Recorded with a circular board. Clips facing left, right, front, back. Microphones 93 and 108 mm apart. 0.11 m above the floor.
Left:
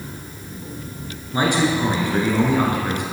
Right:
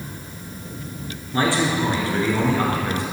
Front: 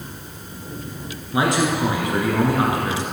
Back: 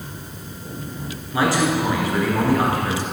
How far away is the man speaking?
About 1.8 m.